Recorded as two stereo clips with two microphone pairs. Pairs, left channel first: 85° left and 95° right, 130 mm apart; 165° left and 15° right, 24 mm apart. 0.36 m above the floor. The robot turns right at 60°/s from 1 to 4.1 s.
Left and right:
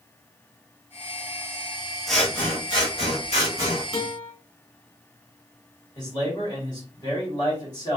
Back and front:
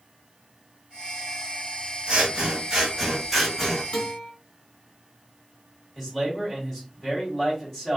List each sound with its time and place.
2.1 s scissors: 5° right, 1.2 m; by 3.8 s 100° left, 1.2 m
3.9 s a guitar: 125° left, 1.7 m; by 4.3 s 135° left, 1.7 m
6.0 s a man speaking: 100° left, 1.7 m